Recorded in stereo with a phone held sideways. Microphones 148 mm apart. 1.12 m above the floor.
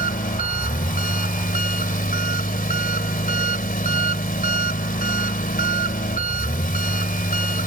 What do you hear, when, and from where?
0.0 s an engine running: 70° left (ahead or behind)